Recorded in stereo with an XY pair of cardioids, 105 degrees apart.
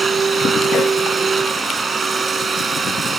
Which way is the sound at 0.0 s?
40° right.